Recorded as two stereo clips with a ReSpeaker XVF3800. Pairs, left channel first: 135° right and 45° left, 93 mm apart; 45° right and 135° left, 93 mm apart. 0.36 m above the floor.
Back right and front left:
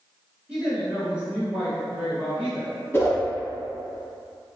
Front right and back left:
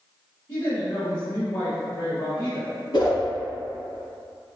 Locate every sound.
0.5 s a woman speaking: 40° right, 0.9 m
2.9 s a whoosh: 75° right, 0.9 m